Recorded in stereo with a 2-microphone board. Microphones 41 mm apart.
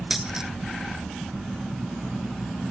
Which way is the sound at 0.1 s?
10° right (ahead or behind).